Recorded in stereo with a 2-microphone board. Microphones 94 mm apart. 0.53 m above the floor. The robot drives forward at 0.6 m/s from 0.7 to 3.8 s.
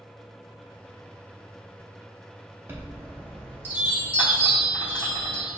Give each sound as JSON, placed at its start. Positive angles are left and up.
{"t": 2.7, "sound": "a chime", "side_deg": -25, "distance_m": 1.1}